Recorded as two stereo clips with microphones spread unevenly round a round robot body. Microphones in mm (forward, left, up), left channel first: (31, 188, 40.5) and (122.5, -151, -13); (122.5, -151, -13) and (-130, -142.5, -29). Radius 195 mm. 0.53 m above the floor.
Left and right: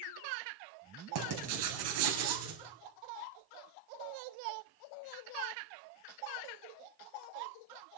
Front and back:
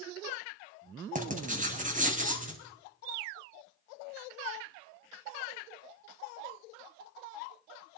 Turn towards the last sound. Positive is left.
turn(degrees=-125)